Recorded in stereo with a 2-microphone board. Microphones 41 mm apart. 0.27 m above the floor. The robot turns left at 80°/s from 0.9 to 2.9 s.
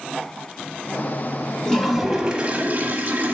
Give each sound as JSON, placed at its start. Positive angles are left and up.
{"t": 1.6, "sound": "a toilet flushing", "azimuth_deg": 25, "distance_m": 1.1}